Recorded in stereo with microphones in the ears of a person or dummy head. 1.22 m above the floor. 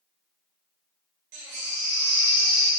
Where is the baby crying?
50° right (ahead or behind), 0.9 m.